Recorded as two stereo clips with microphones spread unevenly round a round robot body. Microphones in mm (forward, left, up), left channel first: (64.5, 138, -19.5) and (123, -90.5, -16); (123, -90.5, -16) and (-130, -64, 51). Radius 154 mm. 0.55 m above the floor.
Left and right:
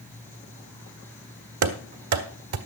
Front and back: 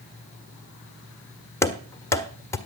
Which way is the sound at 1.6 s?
90° right.